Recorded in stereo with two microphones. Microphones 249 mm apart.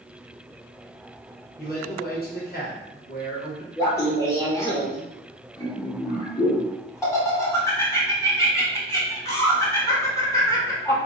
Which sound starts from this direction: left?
A man speaking, at 1.6 s.